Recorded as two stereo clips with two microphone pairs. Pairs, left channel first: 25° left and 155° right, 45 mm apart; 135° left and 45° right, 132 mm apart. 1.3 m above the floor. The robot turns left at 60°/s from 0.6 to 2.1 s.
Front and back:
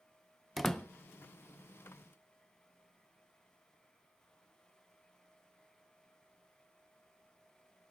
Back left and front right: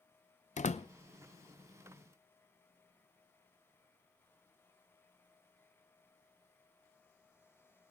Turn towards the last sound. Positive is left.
turn(degrees=25)